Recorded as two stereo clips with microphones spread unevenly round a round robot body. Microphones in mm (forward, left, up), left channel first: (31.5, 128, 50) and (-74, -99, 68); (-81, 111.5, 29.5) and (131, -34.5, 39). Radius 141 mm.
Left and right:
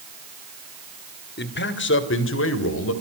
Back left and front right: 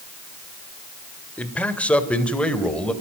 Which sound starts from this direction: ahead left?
A man speaking, at 1.4 s.